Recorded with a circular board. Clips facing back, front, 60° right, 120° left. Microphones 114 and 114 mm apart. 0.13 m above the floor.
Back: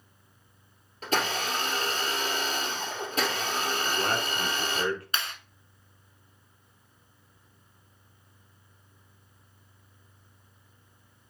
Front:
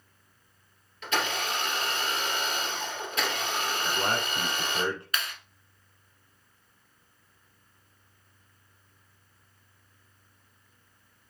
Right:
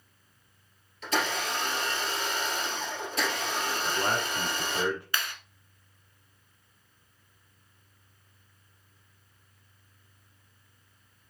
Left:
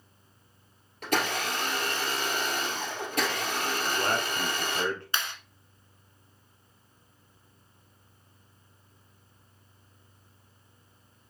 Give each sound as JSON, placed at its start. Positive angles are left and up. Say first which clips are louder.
{"t": 1.0, "sound": "a blender", "louder": "back 1 dB, left 1 dB", "azimuth_deg": 140, "distance_m": 1.8}
{"t": 3.8, "sound": "a man speaking", "louder": "even, even", "azimuth_deg": -5, "distance_m": 1.3}
{"t": 5.1, "sound": "a clap", "louder": "even, even", "azimuth_deg": 160, "distance_m": 1.0}